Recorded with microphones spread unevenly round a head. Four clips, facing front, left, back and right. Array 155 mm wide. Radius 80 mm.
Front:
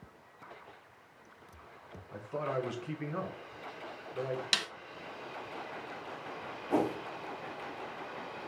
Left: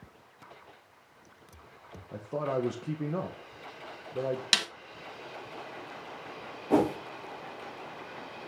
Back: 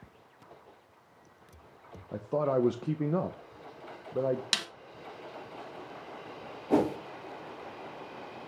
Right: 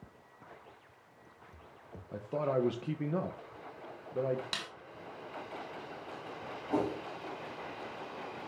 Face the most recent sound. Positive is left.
turn(degrees=120)